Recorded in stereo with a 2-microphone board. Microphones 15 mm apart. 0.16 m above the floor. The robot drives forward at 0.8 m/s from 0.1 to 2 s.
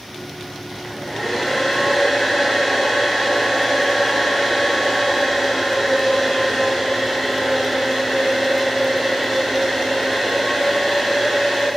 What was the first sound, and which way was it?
A hair dryer, 10° left (ahead or behind).